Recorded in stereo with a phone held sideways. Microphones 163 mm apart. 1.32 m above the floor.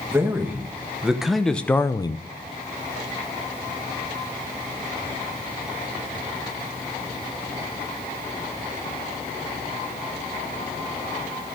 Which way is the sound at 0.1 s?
15° right (ahead or behind).